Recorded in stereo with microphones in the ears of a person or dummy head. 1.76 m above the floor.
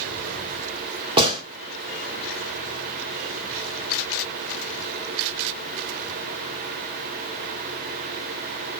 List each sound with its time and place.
1.2 s a gunshot: 30° right (ahead or behind), 1.6 m